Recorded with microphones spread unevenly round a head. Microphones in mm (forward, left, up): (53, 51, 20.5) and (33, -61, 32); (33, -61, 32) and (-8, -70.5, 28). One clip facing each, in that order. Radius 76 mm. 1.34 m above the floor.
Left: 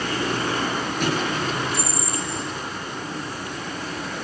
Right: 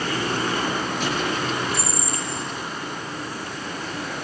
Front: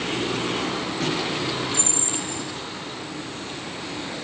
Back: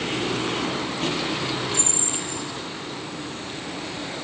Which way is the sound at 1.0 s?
40° left.